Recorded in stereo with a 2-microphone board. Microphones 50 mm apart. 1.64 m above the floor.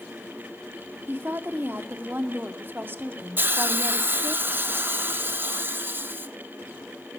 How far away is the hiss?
About 0.5 m.